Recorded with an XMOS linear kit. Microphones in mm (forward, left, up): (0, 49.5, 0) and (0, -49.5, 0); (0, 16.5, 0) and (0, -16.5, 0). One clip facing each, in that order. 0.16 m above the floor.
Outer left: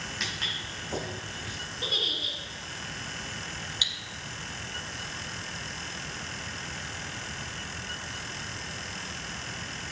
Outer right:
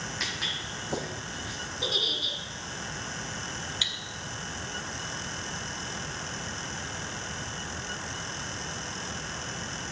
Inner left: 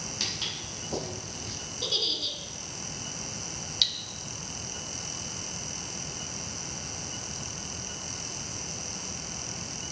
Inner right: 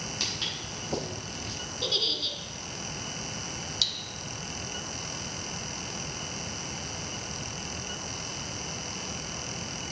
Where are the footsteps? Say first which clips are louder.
Outer right 1 dB, even; centre (ahead or behind), 3 m; by 1.6 s 20° right (ahead or behind), 3.5 m.